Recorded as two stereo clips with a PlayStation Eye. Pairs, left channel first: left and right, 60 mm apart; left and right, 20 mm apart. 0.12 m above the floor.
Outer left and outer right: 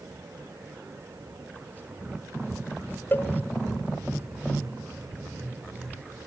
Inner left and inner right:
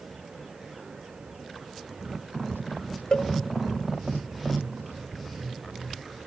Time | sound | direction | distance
3.1 | a cowbell | 35° left (ahead or behind) | 0.9 m